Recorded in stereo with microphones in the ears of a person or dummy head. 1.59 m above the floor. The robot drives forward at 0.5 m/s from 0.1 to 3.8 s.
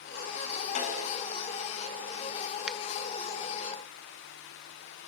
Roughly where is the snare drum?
Left.